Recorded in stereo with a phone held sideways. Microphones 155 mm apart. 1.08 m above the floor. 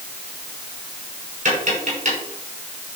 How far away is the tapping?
About 5.5 m.